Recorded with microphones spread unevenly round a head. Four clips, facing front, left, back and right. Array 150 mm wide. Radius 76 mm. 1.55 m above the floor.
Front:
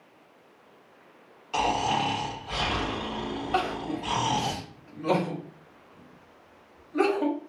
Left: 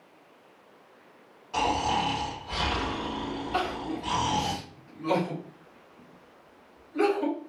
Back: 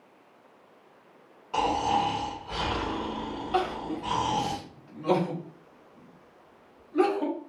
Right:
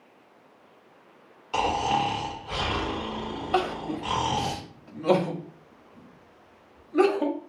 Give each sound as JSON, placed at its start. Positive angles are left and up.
{"t": 1.5, "sound": "snoring", "azimuth_deg": -125, "distance_m": 1.3}
{"t": 3.5, "sound": "crying", "azimuth_deg": -65, "distance_m": 0.8}